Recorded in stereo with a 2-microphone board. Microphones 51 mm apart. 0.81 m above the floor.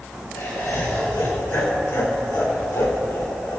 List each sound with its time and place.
0.3 s laughter: 40° left (ahead or behind), 4.5 m; by 3.6 s 60° left (ahead or behind), 2.5 m